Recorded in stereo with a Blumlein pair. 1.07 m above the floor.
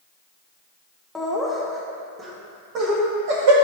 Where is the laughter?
5° left, 1.6 m; by 3.5 s 55° right, 1.8 m.